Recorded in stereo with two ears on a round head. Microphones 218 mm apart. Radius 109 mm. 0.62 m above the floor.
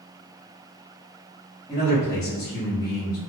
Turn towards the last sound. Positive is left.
turn(degrees=15)  # may be behind; listen again after turning